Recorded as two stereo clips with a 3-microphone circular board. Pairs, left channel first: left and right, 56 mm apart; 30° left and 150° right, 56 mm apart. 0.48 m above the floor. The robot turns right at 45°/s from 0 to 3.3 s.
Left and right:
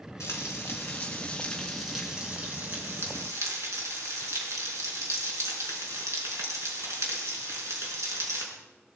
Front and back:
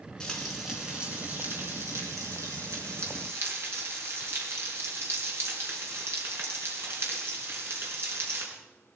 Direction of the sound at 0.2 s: 105° left.